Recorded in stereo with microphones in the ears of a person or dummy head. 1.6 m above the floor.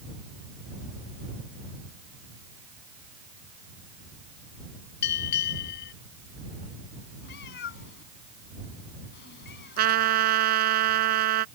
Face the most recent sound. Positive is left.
turn(degrees=-55)  # may be behind; listen again after turning